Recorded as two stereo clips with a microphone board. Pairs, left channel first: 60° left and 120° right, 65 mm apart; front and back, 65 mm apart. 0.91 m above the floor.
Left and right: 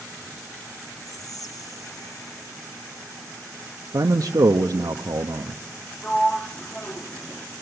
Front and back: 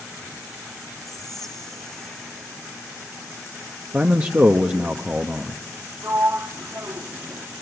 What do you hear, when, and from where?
1.1 s whispering: 85° left, 0.8 m
3.9 s a man speaking: 120° right, 0.9 m
6.0 s a sliding door: 135° left, 0.9 m